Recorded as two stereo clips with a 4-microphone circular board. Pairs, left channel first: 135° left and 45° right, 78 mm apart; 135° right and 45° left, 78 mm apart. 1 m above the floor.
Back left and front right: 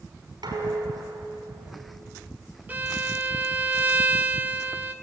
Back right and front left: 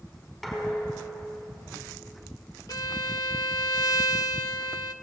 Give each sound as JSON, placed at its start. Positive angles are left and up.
{"t": 0.4, "sound": "dishes clattering", "azimuth_deg": -50, "distance_m": 6.0}
{"t": 2.7, "sound": "a violin", "azimuth_deg": -110, "distance_m": 1.0}